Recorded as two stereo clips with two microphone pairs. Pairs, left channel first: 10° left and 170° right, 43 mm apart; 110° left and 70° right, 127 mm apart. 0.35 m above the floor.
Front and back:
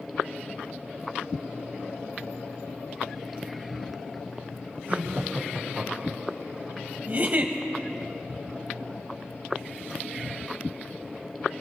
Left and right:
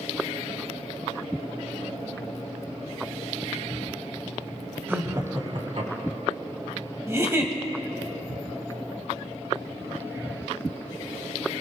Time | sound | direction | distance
4.9 | laughter | 140° right | 1.6 m
7.1 | a giggle | 135° right | 1.6 m